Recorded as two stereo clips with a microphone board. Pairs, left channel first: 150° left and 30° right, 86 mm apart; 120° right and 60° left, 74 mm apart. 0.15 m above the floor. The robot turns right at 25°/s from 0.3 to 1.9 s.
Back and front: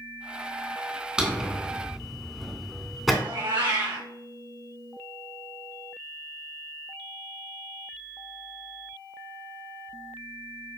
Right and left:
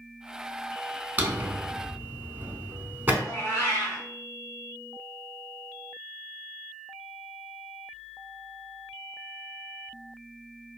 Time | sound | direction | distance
1.2 | a drawer | 40° left | 0.5 m
3.2 | a cat meowing | 40° right | 2 m